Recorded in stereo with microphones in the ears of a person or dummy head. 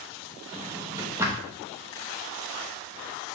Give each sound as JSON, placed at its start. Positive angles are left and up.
{"t": 0.5, "sound": "a drawer", "side_deg": -10, "distance_m": 0.9}